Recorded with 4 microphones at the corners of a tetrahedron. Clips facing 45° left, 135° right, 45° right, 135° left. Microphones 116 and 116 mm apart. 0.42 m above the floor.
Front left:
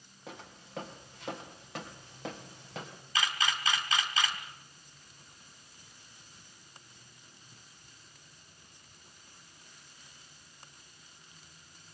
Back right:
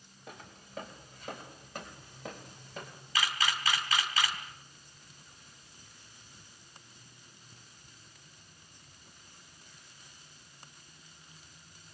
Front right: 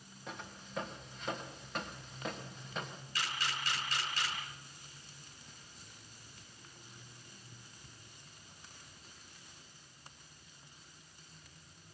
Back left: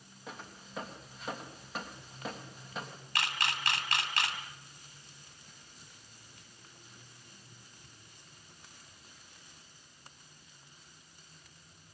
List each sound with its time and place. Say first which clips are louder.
0.3 s footsteps: front left 2 dB, even; 50° left, 6 m
3.1 s a camera shutter: even, back left 4 dB; 115° left, 3.5 m